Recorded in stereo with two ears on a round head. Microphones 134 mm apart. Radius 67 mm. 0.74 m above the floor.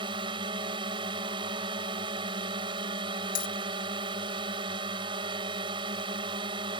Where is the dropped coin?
60° left (ahead or behind).